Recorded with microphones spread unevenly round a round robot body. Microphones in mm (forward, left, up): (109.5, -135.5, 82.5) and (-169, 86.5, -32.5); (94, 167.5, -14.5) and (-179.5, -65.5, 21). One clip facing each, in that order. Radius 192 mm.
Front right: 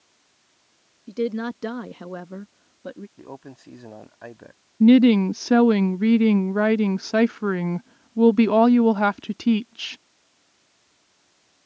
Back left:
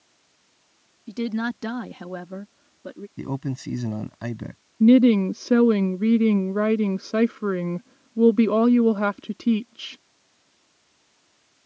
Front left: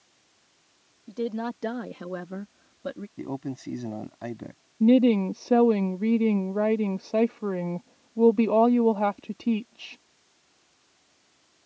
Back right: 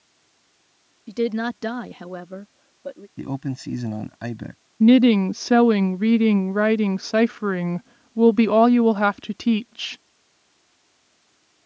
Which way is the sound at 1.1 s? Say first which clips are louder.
Front right 1 dB, back right 7 dB; 165° right.